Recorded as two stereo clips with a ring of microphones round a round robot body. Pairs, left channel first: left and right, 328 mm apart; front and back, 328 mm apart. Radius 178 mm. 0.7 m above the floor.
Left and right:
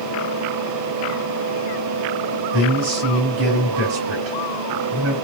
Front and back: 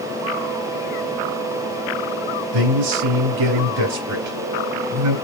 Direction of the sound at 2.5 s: 145° right.